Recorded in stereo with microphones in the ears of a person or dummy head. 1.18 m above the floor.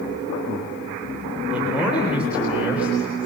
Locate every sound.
1.5 s a man speaking: 5° right (ahead or behind), 4 m